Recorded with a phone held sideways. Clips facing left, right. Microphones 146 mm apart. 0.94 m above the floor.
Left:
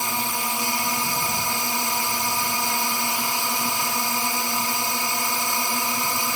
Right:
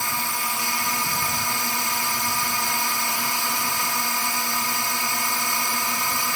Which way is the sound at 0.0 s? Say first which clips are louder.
Left 2 dB; 20° left (ahead or behind).